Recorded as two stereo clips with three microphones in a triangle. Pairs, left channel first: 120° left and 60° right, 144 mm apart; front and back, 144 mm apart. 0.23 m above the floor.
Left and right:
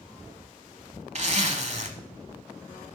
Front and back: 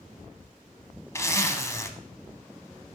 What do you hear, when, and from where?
1.1 s a zipper: 65° right, 0.8 m